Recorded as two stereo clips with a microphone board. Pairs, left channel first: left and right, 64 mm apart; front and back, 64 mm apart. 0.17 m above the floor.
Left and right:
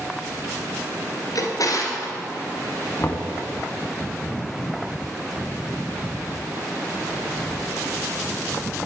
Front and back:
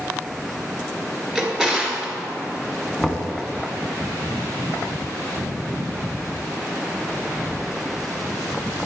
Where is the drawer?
105° left, 1.8 m.